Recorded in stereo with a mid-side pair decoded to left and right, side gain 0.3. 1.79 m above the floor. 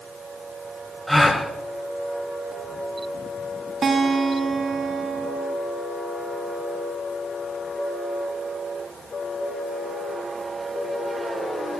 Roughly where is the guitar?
Ahead right.